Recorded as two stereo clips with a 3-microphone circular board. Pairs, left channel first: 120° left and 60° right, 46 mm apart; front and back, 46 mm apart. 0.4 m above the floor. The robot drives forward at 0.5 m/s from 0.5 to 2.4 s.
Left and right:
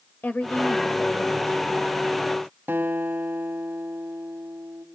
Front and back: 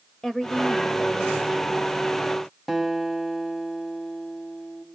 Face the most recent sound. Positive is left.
turn(degrees=-90)